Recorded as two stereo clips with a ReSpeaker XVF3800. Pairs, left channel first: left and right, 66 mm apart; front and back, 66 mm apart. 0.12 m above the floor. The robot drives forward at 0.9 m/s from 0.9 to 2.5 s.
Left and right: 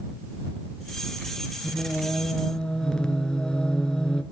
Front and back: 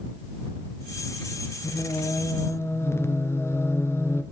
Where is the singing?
5° left, 1.6 m; by 4.2 s 15° left, 1.0 m.